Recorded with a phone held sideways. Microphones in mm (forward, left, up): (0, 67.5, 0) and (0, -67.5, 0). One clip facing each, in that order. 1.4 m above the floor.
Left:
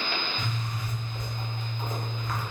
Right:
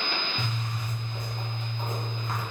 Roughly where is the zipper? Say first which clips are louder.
Even; right.